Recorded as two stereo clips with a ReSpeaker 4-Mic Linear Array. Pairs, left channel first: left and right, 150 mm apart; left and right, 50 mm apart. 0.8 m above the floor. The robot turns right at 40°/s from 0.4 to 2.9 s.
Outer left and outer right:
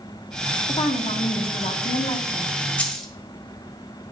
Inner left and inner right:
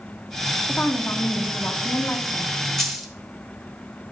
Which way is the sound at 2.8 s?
10° left (ahead or behind).